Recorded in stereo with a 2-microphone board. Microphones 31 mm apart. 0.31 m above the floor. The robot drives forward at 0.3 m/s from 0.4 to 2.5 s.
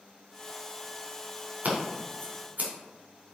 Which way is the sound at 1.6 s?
50° right (ahead or behind).